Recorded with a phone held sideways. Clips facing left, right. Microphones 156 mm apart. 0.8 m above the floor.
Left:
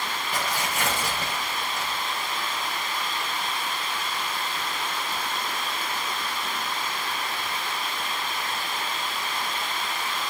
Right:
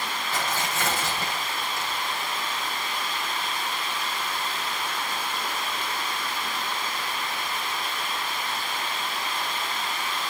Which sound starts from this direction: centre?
Tearing paper, at 0.3 s.